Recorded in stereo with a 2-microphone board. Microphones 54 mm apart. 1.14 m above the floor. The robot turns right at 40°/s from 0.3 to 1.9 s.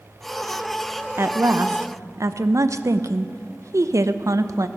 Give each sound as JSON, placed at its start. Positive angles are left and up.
{"t": 1.2, "sound": "a woman speaking", "side_deg": -55, "distance_m": 0.6}